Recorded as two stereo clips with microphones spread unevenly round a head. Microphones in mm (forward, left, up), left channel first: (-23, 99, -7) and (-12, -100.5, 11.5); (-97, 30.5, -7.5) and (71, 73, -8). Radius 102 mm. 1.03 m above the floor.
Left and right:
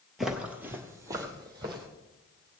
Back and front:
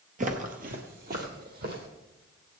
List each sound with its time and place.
0.2 s footsteps: 5° right, 1.3 m; by 1.9 s 20° right, 2.5 m